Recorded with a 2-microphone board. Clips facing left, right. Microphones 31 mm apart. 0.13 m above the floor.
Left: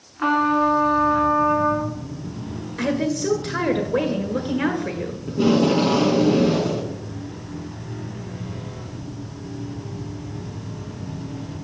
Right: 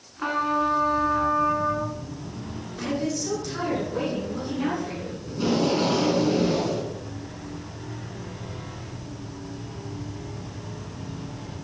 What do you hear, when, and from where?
0.2 s a trumpet: 15° left (ahead or behind), 1.1 m
2.8 s a woman speaking: 50° left (ahead or behind), 1.7 m
5.3 s tape being pulled: 20° left (ahead or behind), 1.7 m